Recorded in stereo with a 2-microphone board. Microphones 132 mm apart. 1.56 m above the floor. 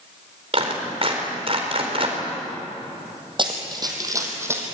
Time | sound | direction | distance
0.5 | a clap | 45° right (ahead or behind) | 4.5 m
3.4 | running footsteps | 35° right (ahead or behind) | 3.5 m